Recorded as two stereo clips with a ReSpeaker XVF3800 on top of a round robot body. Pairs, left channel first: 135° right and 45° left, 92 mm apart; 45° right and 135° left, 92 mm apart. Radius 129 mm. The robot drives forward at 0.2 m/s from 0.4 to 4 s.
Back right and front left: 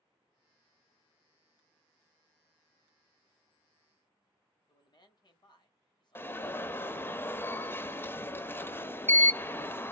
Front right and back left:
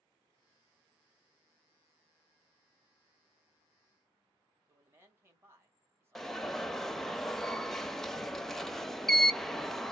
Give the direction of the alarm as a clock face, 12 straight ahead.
4 o'clock.